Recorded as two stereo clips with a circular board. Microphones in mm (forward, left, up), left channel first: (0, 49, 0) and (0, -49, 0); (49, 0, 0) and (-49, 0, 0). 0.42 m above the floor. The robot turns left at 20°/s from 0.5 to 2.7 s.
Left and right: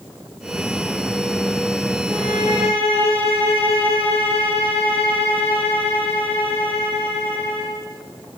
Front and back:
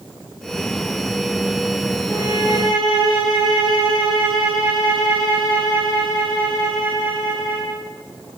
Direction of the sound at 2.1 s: 110° left.